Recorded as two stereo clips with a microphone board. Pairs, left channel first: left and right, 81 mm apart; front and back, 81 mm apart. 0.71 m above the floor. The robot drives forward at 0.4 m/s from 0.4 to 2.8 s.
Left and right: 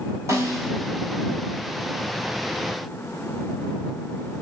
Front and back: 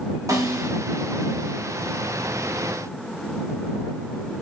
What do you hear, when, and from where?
0.3 s a snare drum: 140° right, 2.5 m